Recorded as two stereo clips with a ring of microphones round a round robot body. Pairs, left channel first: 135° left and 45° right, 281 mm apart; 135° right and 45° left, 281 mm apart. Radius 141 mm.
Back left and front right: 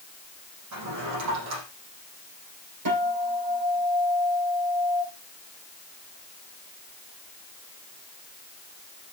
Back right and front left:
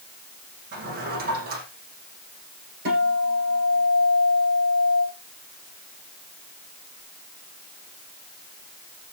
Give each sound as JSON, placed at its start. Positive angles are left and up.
{"t": 0.7, "sound": "a drawer", "azimuth_deg": -15, "distance_m": 8.0}
{"t": 2.9, "sound": "a guitar", "azimuth_deg": -10, "distance_m": 9.5}